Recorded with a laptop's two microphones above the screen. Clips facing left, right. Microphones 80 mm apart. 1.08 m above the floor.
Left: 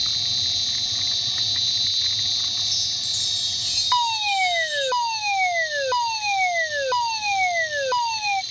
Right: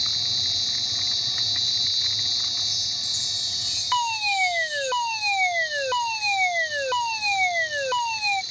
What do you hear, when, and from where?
0.0 s an insect: 25° right (ahead or behind)
2.6 s a chime: 75° left (ahead or behind)
3.9 s a fire alarm: 10° left (ahead or behind)